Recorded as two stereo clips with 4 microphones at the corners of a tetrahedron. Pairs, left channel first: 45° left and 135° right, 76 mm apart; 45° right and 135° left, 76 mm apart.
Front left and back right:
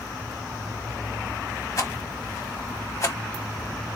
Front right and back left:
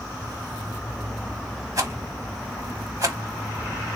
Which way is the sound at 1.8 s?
95° left.